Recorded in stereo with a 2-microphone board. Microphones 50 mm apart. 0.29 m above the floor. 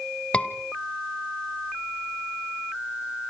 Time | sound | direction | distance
0.3 | a scream | 25° left (ahead or behind) | 1.4 m